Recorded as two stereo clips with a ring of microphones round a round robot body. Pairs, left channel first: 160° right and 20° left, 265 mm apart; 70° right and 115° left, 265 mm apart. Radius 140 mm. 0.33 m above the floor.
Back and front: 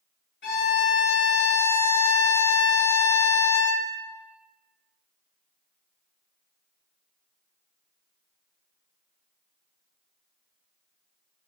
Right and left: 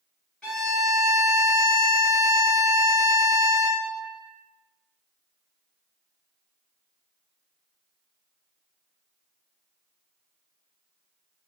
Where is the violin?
155° right, 1.6 m.